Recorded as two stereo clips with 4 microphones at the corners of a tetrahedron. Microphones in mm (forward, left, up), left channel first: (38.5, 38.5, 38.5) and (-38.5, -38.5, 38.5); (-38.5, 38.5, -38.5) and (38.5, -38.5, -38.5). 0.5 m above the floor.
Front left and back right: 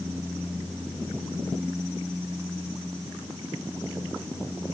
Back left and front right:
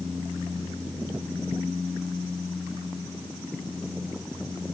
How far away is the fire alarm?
I don't hear a fire alarm.